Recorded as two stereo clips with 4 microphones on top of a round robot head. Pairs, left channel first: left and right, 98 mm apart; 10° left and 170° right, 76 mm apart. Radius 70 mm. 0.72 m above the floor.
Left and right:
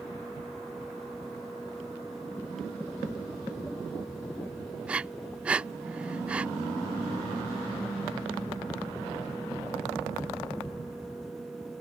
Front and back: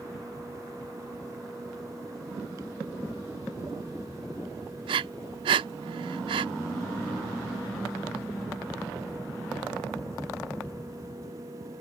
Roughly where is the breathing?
Behind.